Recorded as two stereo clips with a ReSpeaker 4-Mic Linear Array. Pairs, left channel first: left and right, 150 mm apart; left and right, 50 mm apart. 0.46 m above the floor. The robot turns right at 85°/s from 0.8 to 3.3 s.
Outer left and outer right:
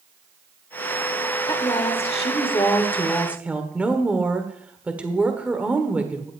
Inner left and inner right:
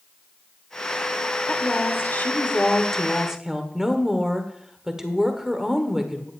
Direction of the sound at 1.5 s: 40° left.